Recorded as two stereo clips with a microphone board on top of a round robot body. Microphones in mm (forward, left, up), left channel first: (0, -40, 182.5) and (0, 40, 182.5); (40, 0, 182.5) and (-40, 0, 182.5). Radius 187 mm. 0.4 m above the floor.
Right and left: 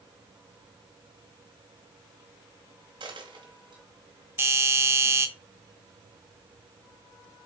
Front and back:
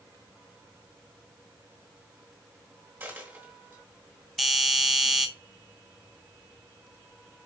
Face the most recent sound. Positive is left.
turn(degrees=95)